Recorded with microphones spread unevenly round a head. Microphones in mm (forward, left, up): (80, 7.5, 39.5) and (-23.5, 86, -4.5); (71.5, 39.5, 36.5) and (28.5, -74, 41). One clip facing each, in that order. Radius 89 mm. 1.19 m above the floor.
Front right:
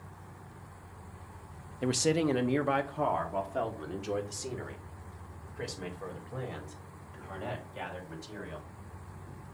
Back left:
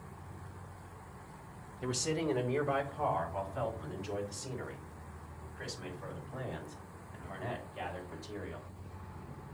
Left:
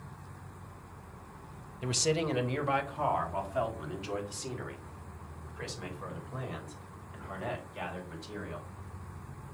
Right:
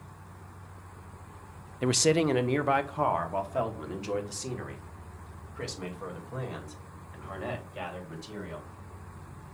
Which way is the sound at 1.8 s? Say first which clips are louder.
Front right 6 dB, right 6 dB; 90° right.